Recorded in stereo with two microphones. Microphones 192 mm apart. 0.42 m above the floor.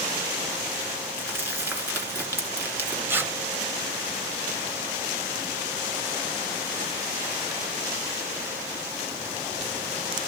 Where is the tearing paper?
10° right (ahead or behind), 1.1 m.